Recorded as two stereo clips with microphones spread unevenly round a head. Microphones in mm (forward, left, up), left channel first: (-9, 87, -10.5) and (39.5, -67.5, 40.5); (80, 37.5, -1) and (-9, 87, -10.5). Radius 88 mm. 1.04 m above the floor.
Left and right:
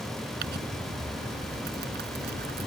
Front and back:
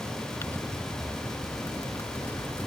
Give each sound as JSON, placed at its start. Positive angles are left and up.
{"t": 0.4, "sound": "crumpling", "azimuth_deg": -105}